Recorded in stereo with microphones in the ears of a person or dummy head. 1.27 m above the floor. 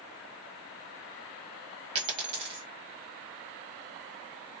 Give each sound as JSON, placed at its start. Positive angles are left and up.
{"t": 1.9, "sound": "a dropped coin", "side_deg": -30, "distance_m": 1.2}